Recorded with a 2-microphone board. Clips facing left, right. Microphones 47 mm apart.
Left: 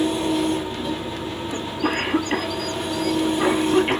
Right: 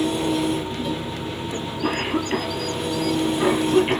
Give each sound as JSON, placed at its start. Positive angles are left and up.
{"t": 0.0, "sound": "an engine running", "side_deg": 0, "distance_m": 1.3}
{"t": 1.5, "sound": "a cough", "side_deg": 10, "distance_m": 1.0}